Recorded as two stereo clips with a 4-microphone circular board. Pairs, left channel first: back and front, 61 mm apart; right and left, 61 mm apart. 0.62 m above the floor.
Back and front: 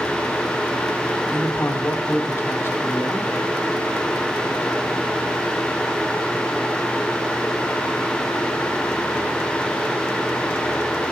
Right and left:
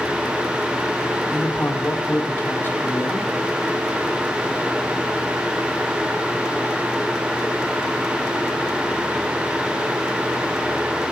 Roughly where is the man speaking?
Behind right.